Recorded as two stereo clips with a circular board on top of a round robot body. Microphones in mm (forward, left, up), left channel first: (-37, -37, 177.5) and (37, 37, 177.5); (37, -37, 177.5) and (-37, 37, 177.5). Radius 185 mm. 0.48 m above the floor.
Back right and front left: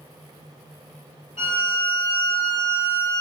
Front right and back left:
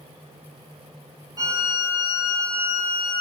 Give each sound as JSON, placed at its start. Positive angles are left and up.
{"t": 1.4, "sound": "a violin", "azimuth_deg": -165, "distance_m": 1.4}